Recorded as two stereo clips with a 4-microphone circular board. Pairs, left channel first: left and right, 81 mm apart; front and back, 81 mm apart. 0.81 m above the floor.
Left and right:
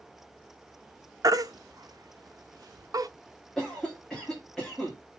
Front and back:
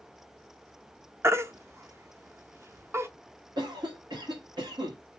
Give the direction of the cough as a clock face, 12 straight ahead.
6 o'clock.